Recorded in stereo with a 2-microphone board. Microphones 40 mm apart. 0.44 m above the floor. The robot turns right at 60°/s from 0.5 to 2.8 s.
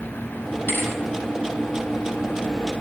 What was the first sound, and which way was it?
A thud, 60° left (ahead or behind).